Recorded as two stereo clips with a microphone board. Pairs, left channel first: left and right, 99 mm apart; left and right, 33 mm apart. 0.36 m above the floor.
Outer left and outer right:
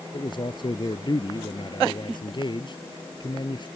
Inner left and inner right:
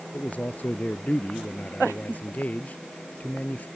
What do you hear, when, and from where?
0.1 s a man speaking: 50° left (ahead or behind)